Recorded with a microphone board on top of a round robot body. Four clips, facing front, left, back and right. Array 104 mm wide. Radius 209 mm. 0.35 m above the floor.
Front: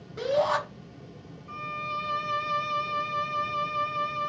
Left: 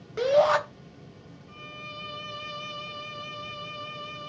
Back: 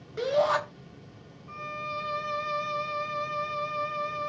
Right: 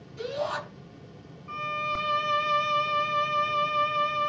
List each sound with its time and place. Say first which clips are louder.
0.2 s a shout: left 10 dB, even; 100° left, 3.5 m
1.5 s a violin: right 14 dB, front 2 dB; 85° right, 1.1 m